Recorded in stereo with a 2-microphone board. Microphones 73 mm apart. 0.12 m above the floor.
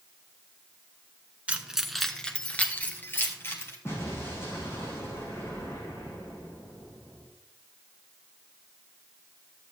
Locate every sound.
1.5 s keys jangling: 20° right (ahead or behind), 1.0 m; by 3.8 s 35° left (ahead or behind), 2 m
3.9 s an explosion: 35° left (ahead or behind), 4.5 m